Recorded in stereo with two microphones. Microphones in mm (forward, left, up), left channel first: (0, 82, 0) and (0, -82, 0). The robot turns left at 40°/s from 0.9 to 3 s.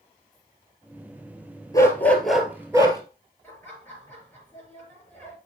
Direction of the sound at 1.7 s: 20° left.